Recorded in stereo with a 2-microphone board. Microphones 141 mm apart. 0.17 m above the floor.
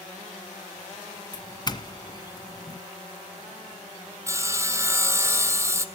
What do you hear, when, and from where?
1.3 s a doorbell: 30° left (ahead or behind), 1.6 m
4.3 s sawing: 20° right (ahead or behind), 1.8 m